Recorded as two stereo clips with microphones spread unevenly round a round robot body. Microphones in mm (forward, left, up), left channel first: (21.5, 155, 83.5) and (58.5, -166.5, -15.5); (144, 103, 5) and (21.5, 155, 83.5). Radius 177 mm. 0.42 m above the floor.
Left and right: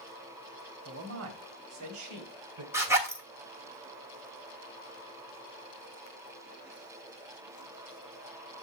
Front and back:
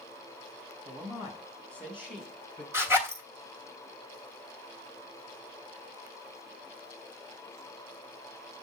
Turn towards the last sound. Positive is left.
turn(degrees=-75)